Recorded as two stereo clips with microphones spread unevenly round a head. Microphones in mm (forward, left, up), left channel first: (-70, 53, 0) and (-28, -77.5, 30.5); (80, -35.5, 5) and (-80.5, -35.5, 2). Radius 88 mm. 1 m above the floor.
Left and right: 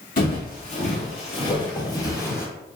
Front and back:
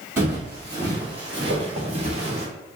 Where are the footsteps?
105° left, 1.4 m; by 2.5 s 170° right, 1.2 m.